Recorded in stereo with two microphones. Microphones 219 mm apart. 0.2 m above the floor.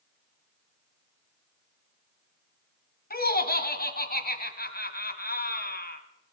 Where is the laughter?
45° left (ahead or behind), 1.4 m.